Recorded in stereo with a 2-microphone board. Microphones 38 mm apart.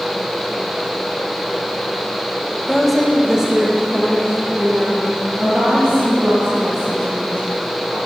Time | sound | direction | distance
2.7 | a woman speaking | 10° left (ahead or behind) | 0.9 m